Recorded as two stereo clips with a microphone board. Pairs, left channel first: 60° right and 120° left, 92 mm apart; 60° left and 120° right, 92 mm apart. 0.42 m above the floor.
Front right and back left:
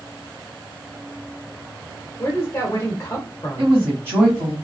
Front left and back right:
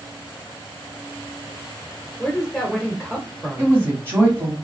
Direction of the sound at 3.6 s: Straight behind.